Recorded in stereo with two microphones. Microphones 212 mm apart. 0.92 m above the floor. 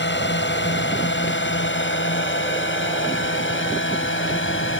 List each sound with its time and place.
0.0 s a drone: 55° left (ahead or behind); by 4.8 s 60° left (ahead or behind)